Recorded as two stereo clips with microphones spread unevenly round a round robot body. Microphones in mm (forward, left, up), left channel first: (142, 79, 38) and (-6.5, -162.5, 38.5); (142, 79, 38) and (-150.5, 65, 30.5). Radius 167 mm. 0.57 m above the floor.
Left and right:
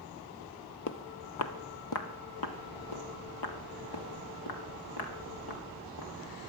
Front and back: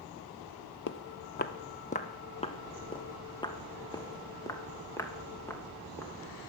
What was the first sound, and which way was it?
Footsteps, 30° left.